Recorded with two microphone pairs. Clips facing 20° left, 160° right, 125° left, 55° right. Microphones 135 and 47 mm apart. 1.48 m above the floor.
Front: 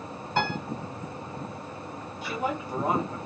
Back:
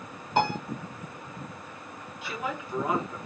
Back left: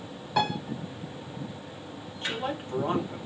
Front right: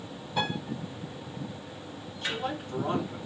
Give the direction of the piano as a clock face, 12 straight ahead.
8 o'clock.